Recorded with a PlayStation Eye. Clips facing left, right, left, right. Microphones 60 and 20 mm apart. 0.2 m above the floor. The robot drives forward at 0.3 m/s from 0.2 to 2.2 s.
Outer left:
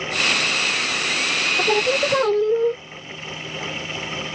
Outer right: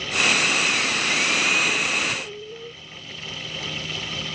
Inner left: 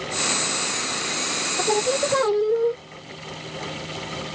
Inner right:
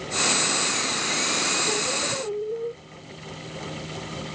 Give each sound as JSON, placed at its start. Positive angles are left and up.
{"t": 1.6, "sound": "singing", "side_deg": 75}